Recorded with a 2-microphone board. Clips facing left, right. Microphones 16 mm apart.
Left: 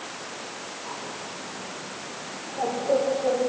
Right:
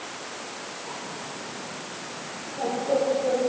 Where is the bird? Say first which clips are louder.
Even; 65° left (ahead or behind), 8.5 m.